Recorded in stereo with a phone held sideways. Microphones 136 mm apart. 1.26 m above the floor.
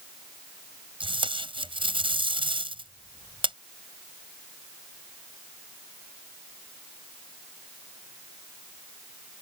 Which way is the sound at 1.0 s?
40° right (ahead or behind).